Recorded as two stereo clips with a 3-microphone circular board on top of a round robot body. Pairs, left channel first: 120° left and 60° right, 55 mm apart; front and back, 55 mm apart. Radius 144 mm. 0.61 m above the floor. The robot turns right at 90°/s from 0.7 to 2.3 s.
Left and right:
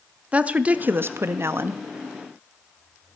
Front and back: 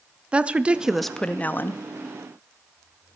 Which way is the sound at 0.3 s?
120° right.